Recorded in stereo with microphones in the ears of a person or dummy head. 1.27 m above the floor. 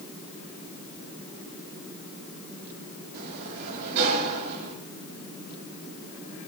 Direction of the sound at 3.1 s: 60° right (ahead or behind).